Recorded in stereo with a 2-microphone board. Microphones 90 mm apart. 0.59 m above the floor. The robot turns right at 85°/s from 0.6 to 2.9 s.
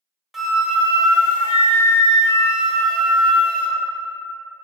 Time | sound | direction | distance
0.3 | a flute | straight behind | 0.5 m